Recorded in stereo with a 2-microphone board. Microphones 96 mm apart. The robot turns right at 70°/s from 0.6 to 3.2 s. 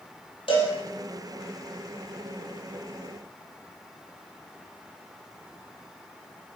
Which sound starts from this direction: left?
A cowbell, at 0.5 s.